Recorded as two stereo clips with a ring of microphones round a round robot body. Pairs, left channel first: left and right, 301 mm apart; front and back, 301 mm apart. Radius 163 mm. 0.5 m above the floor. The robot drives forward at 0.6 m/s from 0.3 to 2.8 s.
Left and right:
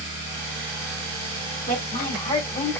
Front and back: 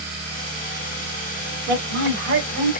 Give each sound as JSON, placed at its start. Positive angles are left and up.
{"t": 1.7, "sound": "a woman speaking", "azimuth_deg": 140, "distance_m": 1.6}